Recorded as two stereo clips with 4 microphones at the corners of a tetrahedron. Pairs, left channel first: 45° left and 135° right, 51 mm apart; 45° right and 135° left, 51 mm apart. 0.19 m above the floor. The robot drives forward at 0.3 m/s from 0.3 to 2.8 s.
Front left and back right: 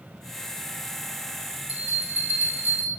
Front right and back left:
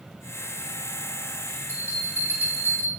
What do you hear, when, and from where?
1.7 s a bell: 175° left, 3 m